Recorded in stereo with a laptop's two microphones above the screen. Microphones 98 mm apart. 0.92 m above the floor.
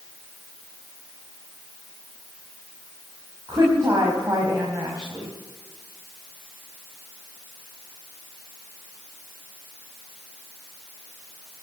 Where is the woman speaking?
35° right (ahead or behind), 5 m.